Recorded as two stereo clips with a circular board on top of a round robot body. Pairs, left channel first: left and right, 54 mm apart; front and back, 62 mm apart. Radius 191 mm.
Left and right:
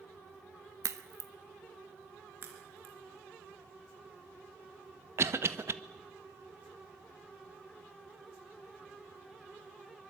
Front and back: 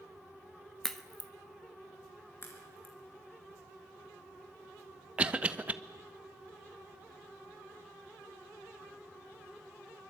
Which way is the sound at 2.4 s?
55° right.